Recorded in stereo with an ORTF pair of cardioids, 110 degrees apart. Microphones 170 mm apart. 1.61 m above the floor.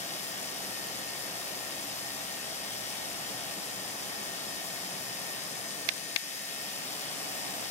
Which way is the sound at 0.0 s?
40° left.